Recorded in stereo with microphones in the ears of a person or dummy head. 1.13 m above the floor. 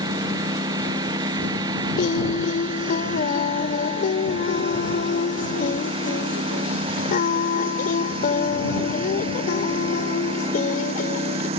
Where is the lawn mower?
20° right (ahead or behind); by 11.6 s 30° right (ahead or behind).